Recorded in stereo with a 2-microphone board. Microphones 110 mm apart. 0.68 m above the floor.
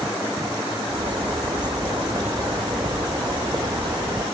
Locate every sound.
0.9 s a bird: 40° right (ahead or behind), 0.6 m